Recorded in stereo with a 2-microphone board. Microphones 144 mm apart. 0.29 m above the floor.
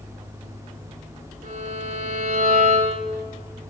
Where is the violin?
85° right, 7.5 m.